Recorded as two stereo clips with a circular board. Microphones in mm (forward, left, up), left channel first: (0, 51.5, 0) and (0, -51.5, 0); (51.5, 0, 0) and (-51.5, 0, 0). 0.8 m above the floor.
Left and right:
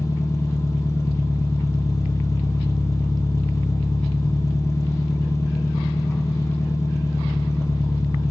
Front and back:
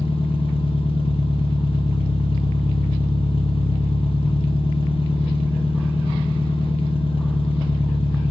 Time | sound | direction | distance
0.0 | an engine running | 30° left | 0.9 m